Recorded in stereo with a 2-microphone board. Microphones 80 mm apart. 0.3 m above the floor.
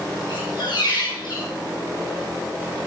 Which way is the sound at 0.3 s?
75° left (ahead or behind).